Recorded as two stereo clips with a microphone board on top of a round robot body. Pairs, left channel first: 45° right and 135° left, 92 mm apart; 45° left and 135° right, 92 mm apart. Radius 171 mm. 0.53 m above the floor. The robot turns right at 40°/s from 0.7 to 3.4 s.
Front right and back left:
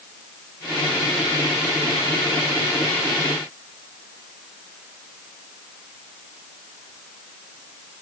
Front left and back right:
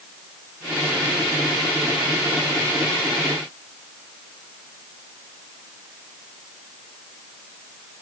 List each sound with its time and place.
Only background noise.